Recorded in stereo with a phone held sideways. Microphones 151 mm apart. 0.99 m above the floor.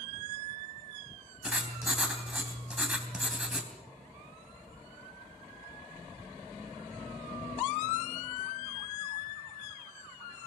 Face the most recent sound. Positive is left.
turn(degrees=-5)  # may be behind; listen again after turning